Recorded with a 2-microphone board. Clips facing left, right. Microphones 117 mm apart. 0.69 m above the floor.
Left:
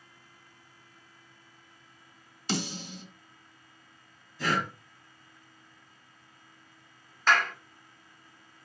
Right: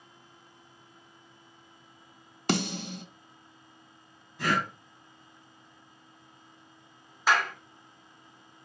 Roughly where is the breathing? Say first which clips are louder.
Right 1 dB; right.